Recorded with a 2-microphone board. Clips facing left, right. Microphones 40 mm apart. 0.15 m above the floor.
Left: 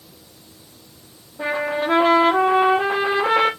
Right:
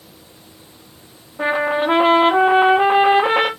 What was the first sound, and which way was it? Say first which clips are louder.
A trumpet: right 4 dB; 40° right (ahead or behind).